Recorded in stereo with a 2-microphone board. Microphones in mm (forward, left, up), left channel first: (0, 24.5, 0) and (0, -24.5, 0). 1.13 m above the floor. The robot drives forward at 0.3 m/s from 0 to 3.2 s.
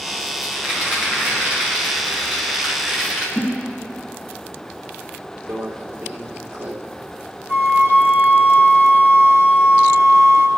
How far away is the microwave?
About 1.9 m.